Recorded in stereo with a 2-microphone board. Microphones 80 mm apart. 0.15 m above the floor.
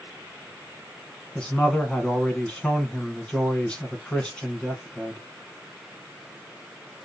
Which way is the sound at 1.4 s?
10° left (ahead or behind).